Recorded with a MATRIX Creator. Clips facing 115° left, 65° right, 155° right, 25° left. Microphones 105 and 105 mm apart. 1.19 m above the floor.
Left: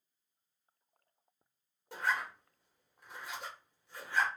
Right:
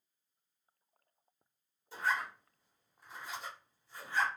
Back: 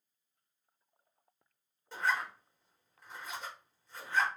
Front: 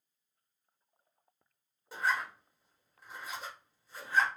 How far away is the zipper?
About 1.1 m.